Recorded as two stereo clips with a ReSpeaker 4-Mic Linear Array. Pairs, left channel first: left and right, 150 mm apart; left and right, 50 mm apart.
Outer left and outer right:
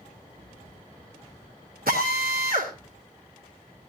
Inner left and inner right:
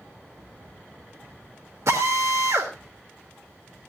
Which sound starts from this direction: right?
A drill, at 1.9 s.